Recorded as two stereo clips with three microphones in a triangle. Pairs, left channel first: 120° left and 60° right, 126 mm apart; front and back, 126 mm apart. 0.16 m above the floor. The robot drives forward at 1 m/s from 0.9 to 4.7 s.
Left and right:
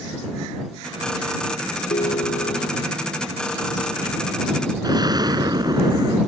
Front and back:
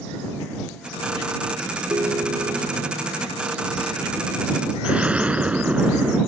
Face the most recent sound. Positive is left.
turn(degrees=-105)